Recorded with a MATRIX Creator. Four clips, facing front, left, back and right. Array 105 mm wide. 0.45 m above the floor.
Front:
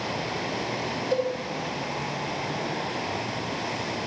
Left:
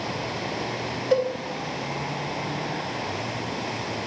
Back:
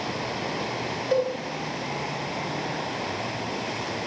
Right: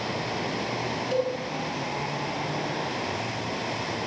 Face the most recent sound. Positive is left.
turn(degrees=125)